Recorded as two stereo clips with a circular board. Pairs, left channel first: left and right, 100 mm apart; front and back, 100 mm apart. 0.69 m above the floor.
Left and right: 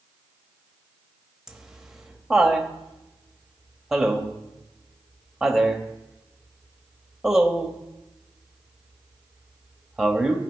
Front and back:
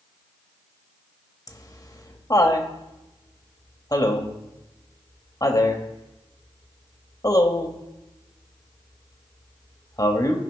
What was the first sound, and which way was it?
Laughter, 5° right.